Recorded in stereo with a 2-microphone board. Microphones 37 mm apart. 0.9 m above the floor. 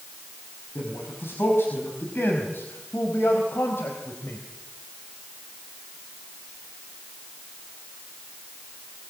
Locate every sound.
0.8 s a man speaking: 80° left, 6 m; by 4.4 s 85° left, 3.5 m